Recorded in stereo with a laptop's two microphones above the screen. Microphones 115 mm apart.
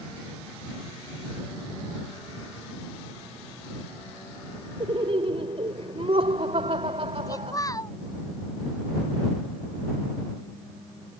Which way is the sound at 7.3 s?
30° left (ahead or behind).